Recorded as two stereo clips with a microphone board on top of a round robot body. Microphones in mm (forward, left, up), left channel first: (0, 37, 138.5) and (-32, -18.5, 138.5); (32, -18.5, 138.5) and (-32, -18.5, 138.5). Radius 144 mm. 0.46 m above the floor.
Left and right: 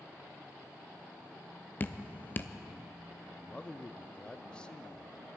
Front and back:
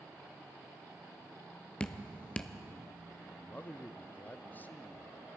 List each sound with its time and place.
1.8 s dripping: 55° left, 0.7 m
3.3 s a man speaking: 5° left, 0.7 m